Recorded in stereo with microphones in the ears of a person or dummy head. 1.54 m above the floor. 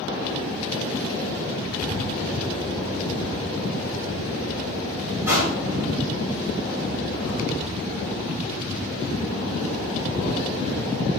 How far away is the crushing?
About 1.9 m.